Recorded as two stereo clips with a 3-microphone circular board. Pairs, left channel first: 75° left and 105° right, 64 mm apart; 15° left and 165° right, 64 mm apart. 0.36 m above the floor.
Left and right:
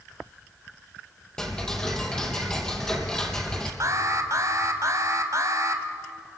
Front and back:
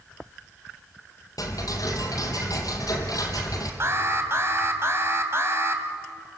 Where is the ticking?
5° right, 3.5 m.